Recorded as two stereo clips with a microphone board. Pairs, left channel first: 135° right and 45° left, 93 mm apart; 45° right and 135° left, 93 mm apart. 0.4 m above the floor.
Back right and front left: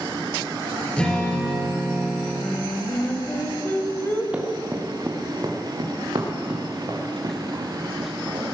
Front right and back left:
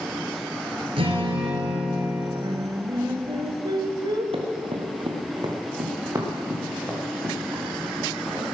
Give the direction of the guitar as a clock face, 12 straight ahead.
7 o'clock.